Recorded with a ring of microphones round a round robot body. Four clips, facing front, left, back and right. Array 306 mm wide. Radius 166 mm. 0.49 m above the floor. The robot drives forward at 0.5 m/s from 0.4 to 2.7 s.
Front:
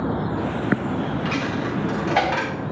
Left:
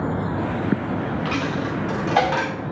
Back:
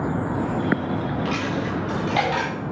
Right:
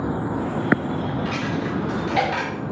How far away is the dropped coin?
About 5 m.